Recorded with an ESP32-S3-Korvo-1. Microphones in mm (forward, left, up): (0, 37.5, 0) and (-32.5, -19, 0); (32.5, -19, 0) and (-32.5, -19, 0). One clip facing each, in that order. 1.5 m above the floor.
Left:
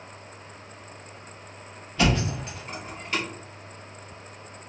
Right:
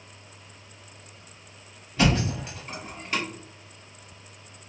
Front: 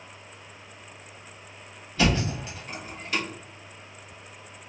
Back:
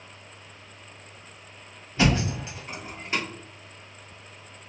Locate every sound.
2.0 s a thud: 165° right, 1.6 m